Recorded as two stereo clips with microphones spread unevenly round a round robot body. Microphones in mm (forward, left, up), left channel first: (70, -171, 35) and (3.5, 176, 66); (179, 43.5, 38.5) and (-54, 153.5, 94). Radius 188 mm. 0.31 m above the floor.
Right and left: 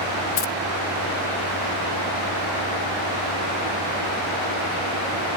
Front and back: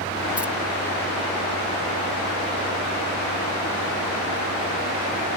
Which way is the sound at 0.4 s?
110° right.